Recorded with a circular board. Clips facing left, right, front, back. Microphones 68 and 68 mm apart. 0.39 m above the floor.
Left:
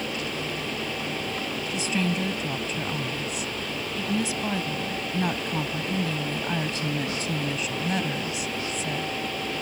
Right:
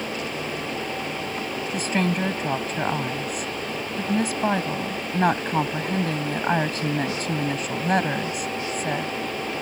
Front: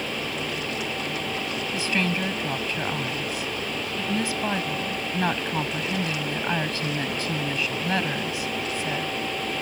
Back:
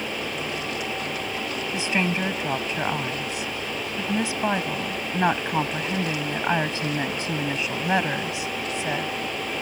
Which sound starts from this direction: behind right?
A woman speaking, at 1.7 s.